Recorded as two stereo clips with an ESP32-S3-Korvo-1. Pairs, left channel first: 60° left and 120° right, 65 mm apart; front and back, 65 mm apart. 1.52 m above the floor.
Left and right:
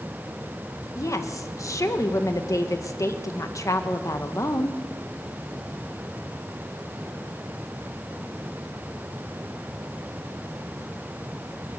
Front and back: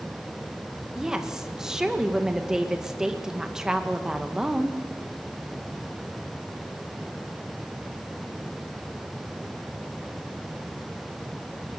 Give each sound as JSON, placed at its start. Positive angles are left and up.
{"t": 0.9, "sound": "a woman speaking", "azimuth_deg": 100, "distance_m": 1.8}